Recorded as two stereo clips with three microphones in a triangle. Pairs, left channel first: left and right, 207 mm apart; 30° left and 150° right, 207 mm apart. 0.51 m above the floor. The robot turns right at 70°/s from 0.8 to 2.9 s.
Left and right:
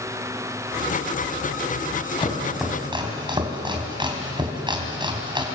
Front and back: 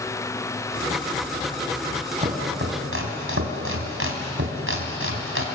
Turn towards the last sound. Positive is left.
turn(degrees=-160)